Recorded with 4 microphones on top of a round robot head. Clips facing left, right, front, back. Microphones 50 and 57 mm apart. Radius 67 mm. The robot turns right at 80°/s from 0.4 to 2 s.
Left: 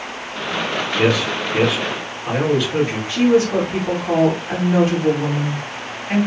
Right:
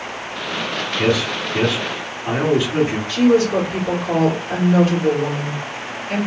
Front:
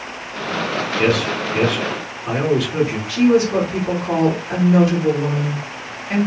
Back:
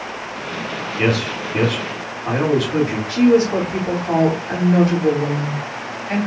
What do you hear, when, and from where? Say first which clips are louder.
1.0 s a man speaking: left 1 dB, front 1 dB; 110° left, 2.5 m; by 3.0 s 165° right, 2.5 m
3.1 s a woman speaking: even, back 1 dB; 145° left, 2.5 m